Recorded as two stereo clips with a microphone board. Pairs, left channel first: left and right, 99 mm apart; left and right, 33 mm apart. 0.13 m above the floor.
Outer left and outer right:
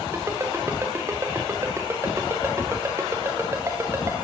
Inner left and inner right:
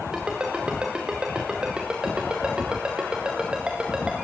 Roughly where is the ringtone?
Right.